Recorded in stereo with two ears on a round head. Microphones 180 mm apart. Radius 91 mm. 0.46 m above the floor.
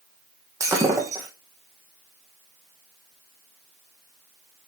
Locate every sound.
0.6 s breaking glass: 15° right (ahead or behind), 2.5 m